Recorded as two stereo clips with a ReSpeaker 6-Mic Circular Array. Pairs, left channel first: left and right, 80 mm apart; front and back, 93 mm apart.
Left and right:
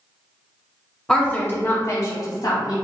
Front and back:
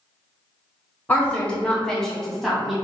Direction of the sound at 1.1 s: 25° left.